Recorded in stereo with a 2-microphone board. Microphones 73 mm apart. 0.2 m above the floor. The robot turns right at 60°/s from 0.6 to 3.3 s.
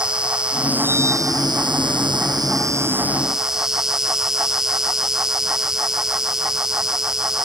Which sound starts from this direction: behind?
An insect, at 0.0 s.